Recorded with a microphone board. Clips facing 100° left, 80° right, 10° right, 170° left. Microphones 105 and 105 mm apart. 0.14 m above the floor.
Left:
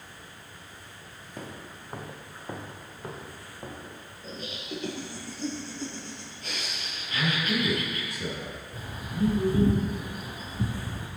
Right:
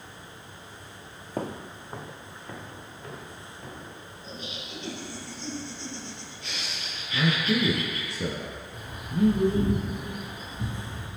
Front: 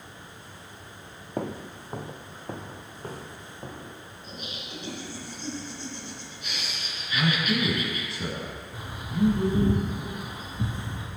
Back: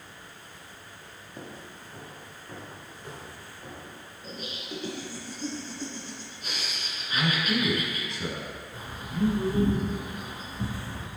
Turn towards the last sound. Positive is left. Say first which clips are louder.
# right 4 dB, front 3 dB
turn(degrees=65)